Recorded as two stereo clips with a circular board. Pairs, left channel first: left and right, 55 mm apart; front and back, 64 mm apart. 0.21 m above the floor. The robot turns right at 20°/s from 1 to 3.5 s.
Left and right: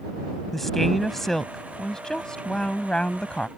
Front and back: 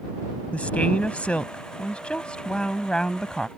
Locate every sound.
0.5 s a woman speaking: 15° left; by 3.5 s 65° left